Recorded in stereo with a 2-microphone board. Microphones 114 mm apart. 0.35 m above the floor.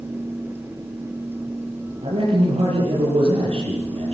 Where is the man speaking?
55° right (ahead or behind), 9 m.